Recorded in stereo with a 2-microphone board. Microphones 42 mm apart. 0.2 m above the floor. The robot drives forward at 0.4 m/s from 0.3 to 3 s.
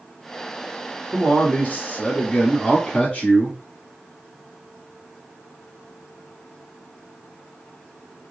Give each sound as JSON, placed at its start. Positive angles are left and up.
{"t": 1.1, "sound": "a man speaking", "side_deg": 40, "distance_m": 1.3}